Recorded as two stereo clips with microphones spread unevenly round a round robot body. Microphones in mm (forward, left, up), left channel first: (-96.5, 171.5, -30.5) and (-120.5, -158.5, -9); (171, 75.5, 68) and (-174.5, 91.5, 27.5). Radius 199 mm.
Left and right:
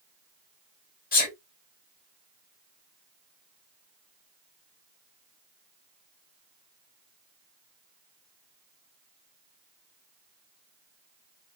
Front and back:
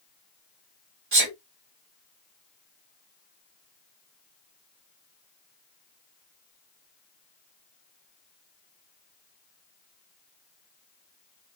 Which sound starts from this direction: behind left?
A sneeze, at 1.1 s.